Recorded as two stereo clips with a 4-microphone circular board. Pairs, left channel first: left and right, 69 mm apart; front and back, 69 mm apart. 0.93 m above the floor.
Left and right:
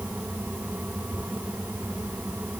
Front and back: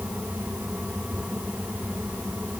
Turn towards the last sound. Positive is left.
No sound to turn to.